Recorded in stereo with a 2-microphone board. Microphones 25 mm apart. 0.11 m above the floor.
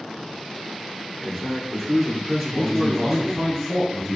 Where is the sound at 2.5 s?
15° left (ahead or behind), 1.1 m.